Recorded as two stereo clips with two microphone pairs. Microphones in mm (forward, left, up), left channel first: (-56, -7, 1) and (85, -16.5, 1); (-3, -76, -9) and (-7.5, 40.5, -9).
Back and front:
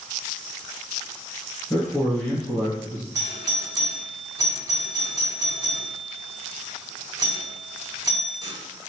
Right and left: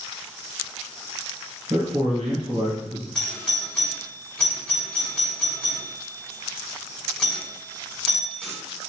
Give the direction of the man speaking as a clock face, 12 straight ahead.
9 o'clock.